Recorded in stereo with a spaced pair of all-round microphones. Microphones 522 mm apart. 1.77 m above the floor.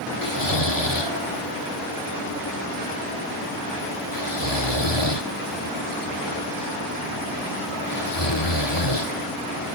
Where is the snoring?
55° left (ahead or behind).